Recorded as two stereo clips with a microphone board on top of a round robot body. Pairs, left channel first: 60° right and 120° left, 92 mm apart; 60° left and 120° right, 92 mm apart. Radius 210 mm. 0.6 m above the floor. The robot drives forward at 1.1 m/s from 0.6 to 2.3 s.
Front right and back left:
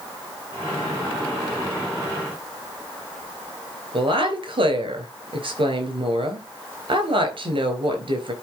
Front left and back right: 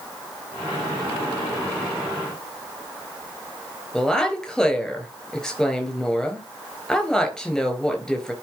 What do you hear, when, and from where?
3.9 s a woman speaking: 145° left, 4 m